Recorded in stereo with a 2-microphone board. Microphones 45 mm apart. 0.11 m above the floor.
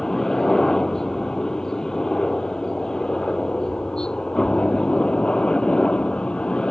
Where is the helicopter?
10° left (ahead or behind); by 6.7 s 20° left (ahead or behind).